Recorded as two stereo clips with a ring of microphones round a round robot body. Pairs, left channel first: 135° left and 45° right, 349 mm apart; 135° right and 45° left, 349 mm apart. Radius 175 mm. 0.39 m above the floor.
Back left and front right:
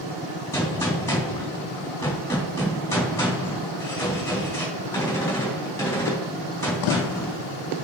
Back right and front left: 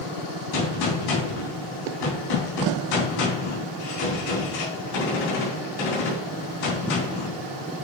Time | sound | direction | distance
0.5 | a gunshot | 145° right | 3.5 m